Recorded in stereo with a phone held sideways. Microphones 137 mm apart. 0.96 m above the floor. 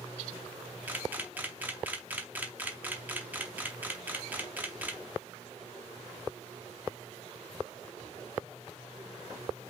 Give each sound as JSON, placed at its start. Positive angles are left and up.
{"t": 0.9, "sound": "a camera shutter", "side_deg": -15, "distance_m": 0.6}